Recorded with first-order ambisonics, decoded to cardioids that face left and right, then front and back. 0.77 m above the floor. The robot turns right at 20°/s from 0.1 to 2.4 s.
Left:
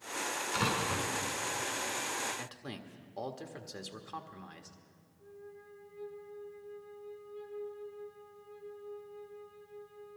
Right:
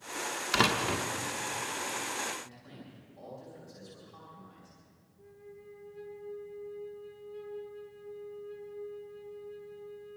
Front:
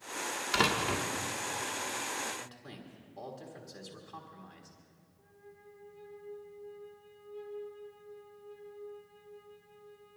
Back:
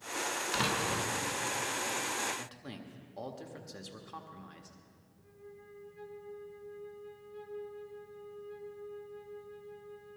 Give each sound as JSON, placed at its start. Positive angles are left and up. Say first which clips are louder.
{"t": 0.5, "sound": "a door slam", "louder": "right 6 dB, front 4 dB", "azimuth_deg": -75, "distance_m": 1.1}
{"t": 2.4, "sound": "a man speaking", "louder": "left 4 dB, back 1 dB", "azimuth_deg": 105, "distance_m": 1.5}
{"t": 5.2, "sound": "a flute", "louder": "even, back 3 dB", "azimuth_deg": -100, "distance_m": 2.5}